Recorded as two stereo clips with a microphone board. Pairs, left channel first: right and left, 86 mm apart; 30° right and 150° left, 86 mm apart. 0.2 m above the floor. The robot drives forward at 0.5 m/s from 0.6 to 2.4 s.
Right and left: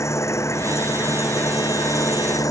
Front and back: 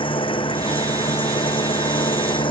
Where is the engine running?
35° right; by 2.5 s 45° right.